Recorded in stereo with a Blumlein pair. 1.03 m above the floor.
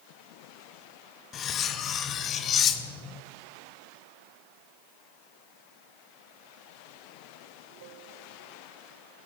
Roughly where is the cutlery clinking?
Ahead left.